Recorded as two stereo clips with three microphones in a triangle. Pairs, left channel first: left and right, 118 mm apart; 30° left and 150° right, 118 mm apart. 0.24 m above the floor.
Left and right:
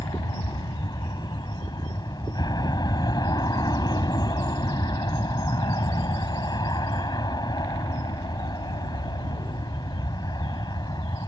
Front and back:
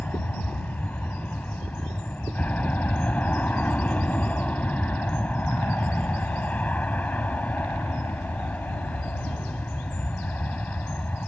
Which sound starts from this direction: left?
An aircraft, at 0.0 s.